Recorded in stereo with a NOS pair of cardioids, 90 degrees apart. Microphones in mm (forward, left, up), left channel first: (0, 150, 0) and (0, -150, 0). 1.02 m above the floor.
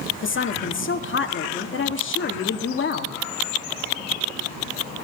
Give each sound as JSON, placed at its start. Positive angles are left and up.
{"t": 0.2, "sound": "a woman speaking", "azimuth_deg": 40, "distance_m": 2.5}